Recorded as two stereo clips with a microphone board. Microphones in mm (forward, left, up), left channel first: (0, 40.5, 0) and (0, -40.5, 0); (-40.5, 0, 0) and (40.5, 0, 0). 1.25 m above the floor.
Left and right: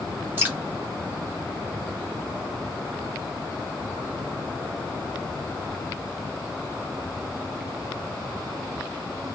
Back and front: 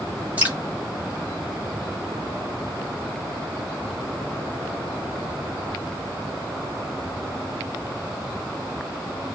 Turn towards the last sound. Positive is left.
turn(degrees=-50)